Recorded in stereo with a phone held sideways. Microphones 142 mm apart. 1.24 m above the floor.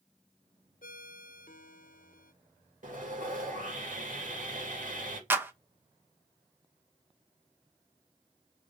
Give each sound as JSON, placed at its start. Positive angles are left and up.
{"t": 0.8, "sound": "a ringtone", "side_deg": 80, "distance_m": 0.7}
{"t": 2.8, "sound": "sawing", "side_deg": -65, "distance_m": 2.5}
{"t": 5.3, "sound": "a clap", "side_deg": -15, "distance_m": 0.8}